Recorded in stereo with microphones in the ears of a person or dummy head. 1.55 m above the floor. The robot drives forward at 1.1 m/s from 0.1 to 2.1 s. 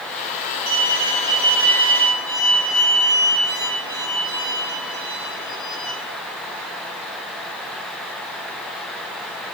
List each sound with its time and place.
0.7 s a violin: 40° right (ahead or behind), 1.8 m; by 5.9 s 25° right (ahead or behind), 3 m